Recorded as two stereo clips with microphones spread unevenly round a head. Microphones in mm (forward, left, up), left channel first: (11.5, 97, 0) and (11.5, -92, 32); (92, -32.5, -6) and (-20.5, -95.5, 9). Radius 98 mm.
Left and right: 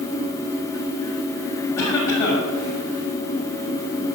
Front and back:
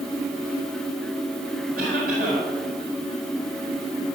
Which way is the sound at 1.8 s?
165° left.